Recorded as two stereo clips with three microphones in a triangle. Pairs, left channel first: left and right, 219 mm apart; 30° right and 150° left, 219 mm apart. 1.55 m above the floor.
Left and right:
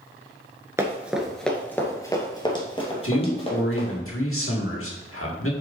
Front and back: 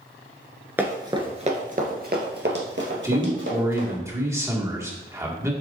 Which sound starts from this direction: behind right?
Running footsteps, at 0.8 s.